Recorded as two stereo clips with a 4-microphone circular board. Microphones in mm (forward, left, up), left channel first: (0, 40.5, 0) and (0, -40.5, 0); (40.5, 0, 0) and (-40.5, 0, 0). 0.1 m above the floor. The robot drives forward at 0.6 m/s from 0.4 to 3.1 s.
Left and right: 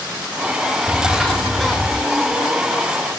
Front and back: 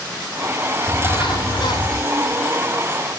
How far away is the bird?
About 5 m.